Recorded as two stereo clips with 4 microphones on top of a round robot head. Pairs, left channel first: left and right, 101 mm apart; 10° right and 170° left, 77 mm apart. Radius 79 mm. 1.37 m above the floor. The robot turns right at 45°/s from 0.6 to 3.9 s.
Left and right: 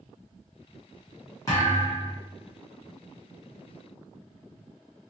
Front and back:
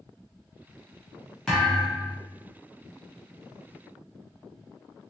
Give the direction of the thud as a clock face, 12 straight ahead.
10 o'clock.